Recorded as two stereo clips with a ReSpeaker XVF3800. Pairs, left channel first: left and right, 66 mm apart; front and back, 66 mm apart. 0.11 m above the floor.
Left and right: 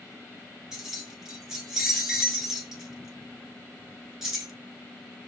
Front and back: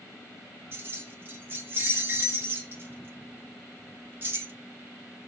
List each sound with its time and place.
0.7 s keys jangling: 165° right, 0.8 m